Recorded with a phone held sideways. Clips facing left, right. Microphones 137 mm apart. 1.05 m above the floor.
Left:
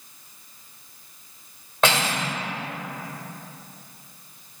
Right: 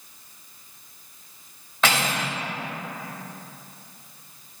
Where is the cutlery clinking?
55° left (ahead or behind), 2.5 m.